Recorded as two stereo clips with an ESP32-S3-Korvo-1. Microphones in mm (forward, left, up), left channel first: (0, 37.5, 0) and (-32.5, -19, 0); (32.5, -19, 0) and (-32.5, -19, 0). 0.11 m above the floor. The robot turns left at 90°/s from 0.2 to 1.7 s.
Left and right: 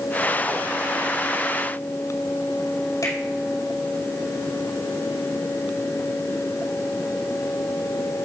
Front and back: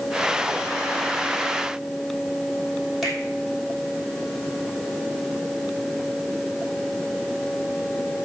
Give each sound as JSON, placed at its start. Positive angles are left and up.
{"t": 3.0, "sound": "a finger snap", "azimuth_deg": 90, "distance_m": 5.0}